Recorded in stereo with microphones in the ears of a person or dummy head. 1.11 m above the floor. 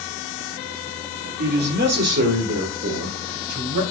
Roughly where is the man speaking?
Right.